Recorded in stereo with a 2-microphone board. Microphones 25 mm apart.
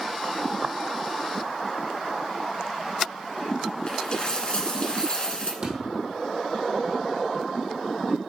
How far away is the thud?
About 2.5 m.